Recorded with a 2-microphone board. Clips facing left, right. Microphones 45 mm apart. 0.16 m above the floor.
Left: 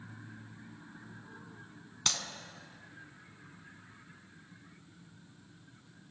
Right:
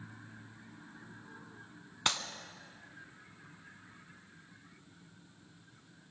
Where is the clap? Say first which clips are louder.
Right 3 dB; 25° right (ahead or behind), 0.9 m.